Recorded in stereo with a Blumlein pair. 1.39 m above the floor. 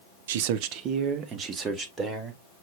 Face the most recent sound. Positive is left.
turn(degrees=-20)